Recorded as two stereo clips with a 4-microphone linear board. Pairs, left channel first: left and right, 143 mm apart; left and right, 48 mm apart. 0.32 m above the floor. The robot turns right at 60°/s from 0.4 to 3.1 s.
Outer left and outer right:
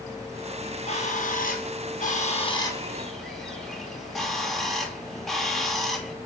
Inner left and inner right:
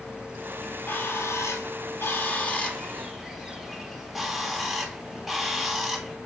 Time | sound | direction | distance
0.6 | a bird | 30° left | 1.9 m